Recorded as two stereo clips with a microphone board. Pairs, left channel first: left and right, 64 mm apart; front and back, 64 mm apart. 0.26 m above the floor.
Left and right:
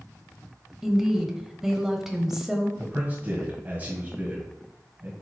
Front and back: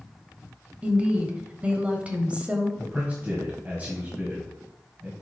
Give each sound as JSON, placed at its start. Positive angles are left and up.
{"t": 0.8, "sound": "a woman speaking", "azimuth_deg": -165, "distance_m": 1.0}
{"t": 2.8, "sound": "a man speaking", "azimuth_deg": -130, "distance_m": 1.5}